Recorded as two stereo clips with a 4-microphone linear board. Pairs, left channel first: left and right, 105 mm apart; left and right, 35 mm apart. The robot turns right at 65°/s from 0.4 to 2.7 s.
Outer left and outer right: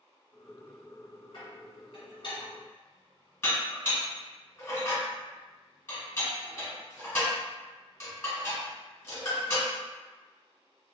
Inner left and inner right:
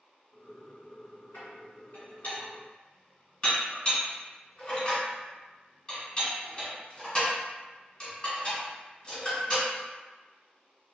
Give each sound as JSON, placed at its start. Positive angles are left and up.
{"t": 1.3, "sound": "dishes clattering", "side_deg": 55, "distance_m": 1.6}